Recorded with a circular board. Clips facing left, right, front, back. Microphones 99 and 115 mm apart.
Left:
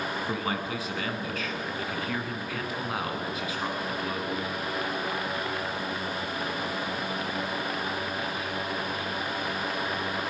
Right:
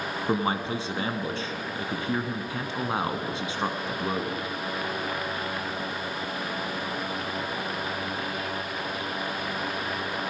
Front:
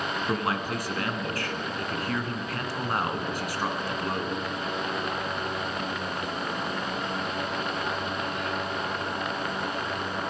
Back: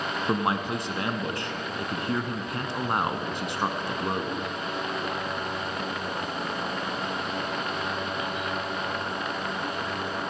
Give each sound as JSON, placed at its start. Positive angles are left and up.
{"t": 0.3, "sound": "a man speaking", "azimuth_deg": -125, "distance_m": 1.2}